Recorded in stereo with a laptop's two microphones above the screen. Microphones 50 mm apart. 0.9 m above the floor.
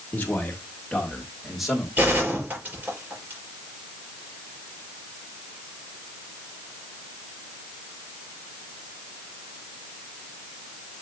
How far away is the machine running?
No machine running in this recording.